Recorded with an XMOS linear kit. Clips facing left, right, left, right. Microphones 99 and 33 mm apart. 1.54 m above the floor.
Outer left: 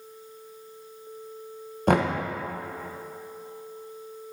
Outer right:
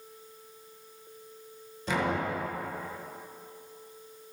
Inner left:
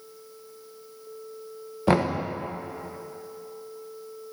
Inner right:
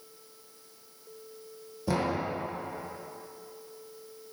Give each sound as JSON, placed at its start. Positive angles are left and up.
{"t": 1.9, "sound": "knocking", "side_deg": 55, "distance_m": 1.2}